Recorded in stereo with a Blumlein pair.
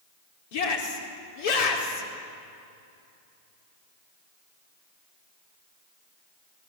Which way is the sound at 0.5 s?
50° left.